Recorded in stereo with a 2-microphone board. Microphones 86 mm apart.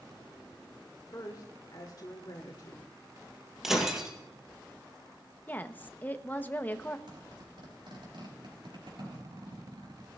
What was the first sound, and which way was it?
A woman speaking, 50° left (ahead or behind).